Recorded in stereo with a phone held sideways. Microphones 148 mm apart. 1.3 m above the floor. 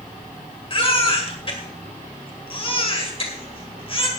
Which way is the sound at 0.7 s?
40° left (ahead or behind).